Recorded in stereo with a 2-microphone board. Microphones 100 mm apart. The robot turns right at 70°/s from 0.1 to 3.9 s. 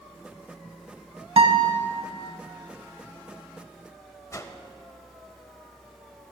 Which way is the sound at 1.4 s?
110° right.